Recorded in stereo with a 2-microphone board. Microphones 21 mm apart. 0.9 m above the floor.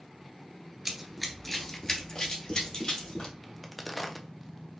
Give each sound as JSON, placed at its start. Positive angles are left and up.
{"t": 0.8, "sound": "running footsteps", "side_deg": -20, "distance_m": 0.9}
{"t": 3.4, "sound": "a crack", "side_deg": 5, "distance_m": 0.5}